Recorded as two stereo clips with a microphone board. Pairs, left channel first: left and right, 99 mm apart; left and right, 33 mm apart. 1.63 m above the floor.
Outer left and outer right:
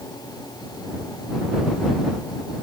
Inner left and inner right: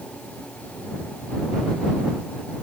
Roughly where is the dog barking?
I don't hear a dog barking.